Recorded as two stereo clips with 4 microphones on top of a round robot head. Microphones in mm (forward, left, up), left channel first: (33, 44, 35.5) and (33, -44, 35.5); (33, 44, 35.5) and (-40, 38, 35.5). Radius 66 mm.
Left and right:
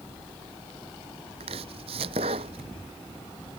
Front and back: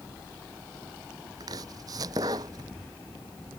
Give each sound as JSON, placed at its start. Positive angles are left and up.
{"t": 1.4, "sound": "chopping", "azimuth_deg": -120}